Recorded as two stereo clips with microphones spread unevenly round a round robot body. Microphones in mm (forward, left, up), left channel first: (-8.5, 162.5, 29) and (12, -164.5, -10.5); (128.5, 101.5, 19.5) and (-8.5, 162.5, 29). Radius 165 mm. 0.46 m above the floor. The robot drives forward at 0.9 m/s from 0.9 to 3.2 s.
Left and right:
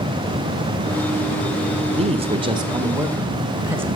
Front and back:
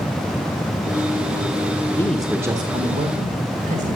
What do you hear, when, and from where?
1.9 s a man speaking: 60° right, 0.7 m; by 4.0 s 165° right, 1.2 m